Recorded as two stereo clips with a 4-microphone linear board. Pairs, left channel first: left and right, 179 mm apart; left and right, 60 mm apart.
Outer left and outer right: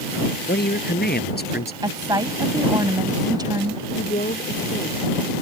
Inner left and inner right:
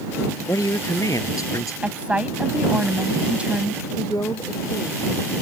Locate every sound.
0.5 s a woman speaking: 65° left (ahead or behind)
1.8 s a woman speaking: 20° right (ahead or behind)
4.0 s a woman speaking: 50° left (ahead or behind)